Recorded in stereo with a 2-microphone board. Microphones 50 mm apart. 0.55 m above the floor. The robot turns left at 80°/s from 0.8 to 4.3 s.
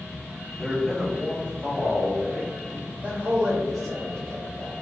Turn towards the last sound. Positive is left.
turn(degrees=135)